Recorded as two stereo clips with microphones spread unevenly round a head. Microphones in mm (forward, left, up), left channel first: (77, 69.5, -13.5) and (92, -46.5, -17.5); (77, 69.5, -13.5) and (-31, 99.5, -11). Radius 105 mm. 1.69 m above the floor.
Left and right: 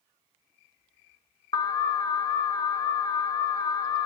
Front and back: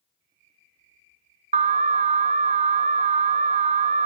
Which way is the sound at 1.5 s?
165° left.